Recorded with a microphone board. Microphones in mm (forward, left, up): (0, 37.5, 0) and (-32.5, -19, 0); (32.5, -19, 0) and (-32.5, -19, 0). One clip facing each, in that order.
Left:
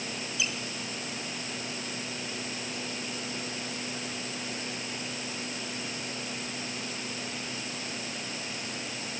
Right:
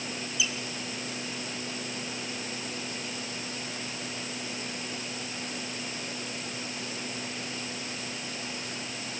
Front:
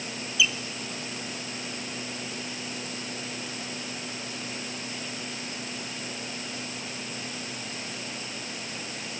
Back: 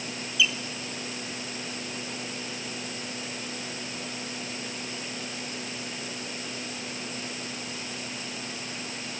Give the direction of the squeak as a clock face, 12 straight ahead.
9 o'clock.